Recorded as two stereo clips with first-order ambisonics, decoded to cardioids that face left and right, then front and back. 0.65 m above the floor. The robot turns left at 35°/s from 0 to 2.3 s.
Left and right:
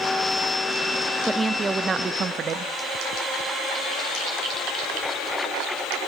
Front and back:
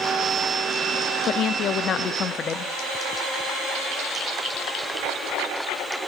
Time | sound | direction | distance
1.3 | a woman speaking | 10° right | 0.6 m